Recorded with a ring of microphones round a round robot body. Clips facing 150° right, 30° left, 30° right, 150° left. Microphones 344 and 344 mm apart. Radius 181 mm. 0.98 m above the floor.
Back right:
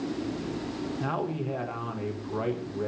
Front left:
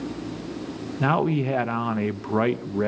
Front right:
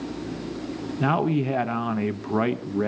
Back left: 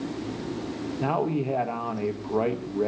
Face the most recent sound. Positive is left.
turn(degrees=25)